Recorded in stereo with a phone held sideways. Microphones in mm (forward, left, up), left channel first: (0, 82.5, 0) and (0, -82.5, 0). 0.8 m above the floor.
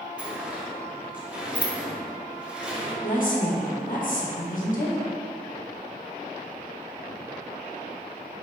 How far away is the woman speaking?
About 1.1 m.